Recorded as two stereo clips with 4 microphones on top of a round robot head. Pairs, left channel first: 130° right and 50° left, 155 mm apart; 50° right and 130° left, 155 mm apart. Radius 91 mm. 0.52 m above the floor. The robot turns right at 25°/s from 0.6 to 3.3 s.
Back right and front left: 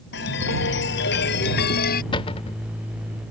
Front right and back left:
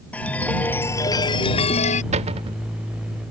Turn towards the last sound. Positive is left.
turn(degrees=-160)